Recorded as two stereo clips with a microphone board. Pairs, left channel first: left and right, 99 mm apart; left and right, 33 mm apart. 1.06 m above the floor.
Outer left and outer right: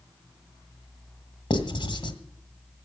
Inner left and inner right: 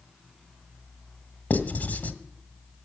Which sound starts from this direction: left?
Writing, at 1.5 s.